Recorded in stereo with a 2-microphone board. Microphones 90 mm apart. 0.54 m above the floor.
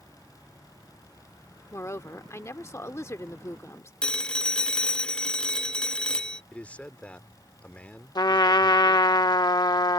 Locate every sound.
1.7 s a woman speaking: 35° left (ahead or behind)
4.0 s a phone ringing: 10° left (ahead or behind)
6.5 s a man speaking: 15° left (ahead or behind)
8.2 s a trumpet: 50° left (ahead or behind)